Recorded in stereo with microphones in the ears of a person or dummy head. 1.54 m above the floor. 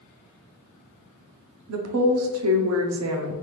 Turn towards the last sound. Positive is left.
turn(degrees=-85)